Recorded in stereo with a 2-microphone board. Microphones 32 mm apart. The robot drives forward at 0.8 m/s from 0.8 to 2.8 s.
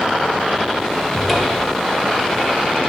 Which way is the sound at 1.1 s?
5° left (ahead or behind).